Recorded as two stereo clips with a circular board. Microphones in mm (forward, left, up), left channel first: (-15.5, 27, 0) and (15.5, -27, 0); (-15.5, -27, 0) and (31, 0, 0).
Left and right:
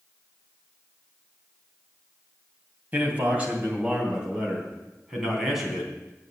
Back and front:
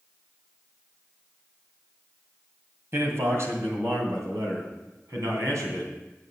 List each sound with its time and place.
2.9 s a man speaking: straight ahead, 2.5 m; by 5.9 s 30° left, 4 m